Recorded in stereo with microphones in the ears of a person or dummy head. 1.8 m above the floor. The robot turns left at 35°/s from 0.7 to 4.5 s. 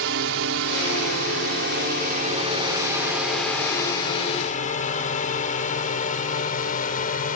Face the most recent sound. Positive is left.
turn(degrees=45)  # may be behind; listen again after turning